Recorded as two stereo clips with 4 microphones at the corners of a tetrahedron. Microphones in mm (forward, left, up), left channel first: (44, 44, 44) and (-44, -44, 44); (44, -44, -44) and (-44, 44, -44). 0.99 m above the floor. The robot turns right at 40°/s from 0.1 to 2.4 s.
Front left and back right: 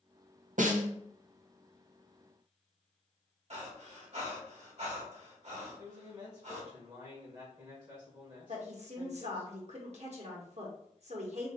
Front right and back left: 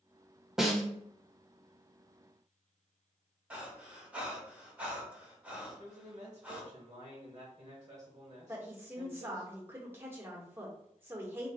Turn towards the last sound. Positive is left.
turn(degrees=-155)